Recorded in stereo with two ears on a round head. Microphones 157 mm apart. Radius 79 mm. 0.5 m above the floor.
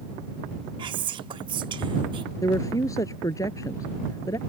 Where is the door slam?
No door slam in this recording.